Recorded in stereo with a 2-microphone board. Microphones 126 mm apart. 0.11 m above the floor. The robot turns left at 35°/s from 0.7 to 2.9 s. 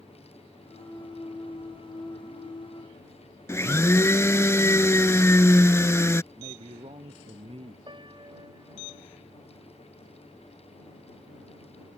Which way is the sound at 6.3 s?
50° right (ahead or behind).